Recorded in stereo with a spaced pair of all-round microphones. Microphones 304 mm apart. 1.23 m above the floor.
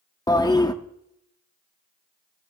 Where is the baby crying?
I don't hear a baby crying.